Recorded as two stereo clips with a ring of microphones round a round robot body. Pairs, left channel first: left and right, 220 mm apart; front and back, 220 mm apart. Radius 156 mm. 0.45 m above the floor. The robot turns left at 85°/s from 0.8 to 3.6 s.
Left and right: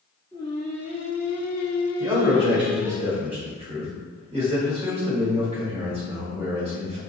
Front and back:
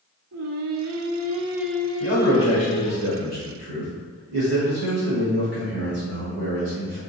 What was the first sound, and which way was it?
Singing, 165° left.